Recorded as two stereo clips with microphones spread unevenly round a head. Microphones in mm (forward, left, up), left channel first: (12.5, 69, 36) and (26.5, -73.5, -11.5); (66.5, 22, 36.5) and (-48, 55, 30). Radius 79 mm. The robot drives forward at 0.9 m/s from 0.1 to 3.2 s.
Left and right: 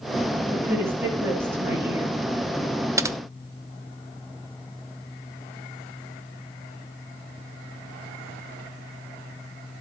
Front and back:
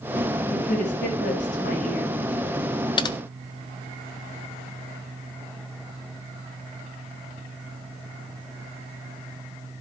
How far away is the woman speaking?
About 9.5 m.